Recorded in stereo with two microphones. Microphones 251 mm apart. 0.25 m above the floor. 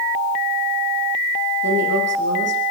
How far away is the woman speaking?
About 9 m.